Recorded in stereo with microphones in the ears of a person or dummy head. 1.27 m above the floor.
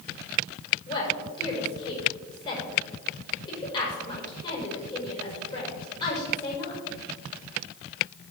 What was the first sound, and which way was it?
A woman speaking, 35° left (ahead or behind).